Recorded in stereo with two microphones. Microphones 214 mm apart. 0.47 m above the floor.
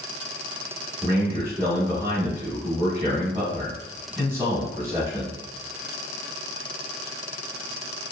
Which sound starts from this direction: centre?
A man speaking, at 1.0 s.